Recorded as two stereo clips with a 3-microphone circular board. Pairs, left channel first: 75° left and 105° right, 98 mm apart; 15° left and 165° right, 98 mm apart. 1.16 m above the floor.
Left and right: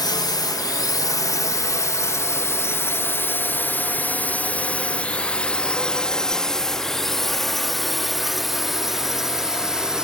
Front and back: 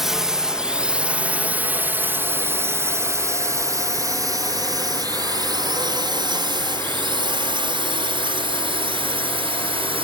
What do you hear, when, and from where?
0.0 s a drone: 110° left; by 10.1 s 170° left